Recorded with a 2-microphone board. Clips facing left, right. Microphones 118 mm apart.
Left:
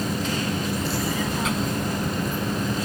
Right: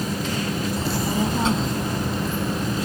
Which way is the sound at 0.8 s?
35° right (ahead or behind).